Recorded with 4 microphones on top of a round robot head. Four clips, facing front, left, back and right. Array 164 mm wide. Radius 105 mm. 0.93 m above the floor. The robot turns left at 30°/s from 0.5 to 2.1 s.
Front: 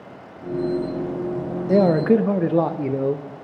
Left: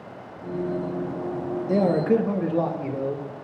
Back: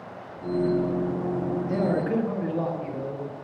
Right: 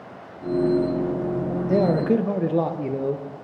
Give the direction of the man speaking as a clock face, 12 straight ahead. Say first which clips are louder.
Even, front 11 dB; 12 o'clock.